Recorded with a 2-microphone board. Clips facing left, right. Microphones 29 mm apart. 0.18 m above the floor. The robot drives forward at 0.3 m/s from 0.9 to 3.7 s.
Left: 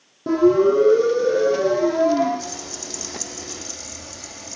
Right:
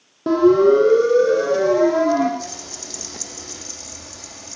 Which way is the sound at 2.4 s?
5° right (ahead or behind).